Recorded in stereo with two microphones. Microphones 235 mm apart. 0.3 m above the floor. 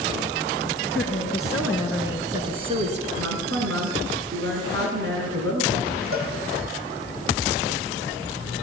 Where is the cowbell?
65° right (ahead or behind), 6 m.